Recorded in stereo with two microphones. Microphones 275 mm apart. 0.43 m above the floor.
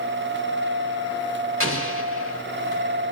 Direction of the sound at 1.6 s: 50° right (ahead or behind).